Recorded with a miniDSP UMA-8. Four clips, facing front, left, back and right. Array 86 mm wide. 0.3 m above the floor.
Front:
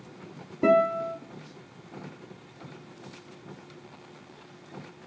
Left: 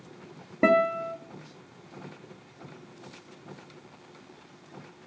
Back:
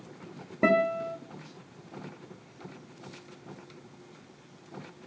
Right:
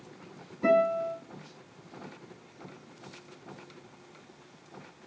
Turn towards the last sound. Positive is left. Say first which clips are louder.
# left 2 dB, front 3 dB
turn(degrees=120)